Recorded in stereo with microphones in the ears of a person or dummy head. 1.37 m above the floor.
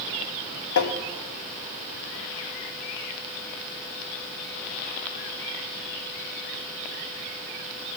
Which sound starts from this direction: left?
Tapping, at 0.8 s.